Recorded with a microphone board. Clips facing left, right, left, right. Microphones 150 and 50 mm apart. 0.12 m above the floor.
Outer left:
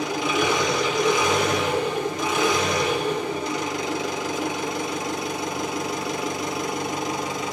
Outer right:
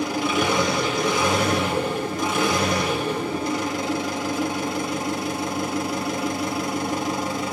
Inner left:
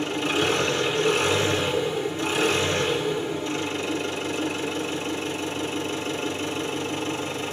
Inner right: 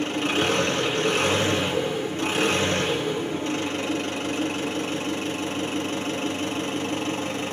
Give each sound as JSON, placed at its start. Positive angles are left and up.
{"t": 0.0, "sound": "an engine running", "side_deg": -55, "distance_m": 3.0}